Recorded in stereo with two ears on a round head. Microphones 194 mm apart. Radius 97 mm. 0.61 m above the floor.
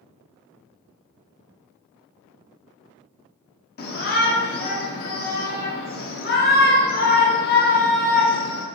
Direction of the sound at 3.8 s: 45° left (ahead or behind).